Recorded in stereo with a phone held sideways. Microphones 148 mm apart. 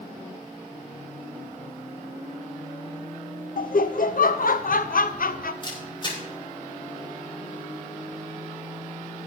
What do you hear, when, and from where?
3.6 s laughter: 70° left (ahead or behind), 0.6 m
5.6 s a camera shutter: 30° left (ahead or behind), 5 m